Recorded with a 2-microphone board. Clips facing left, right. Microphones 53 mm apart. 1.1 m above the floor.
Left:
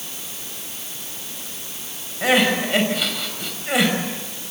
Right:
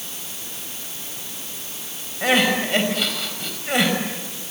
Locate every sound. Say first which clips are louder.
2.2 s crying: left 1 dB; 5° left (ahead or behind), 5 m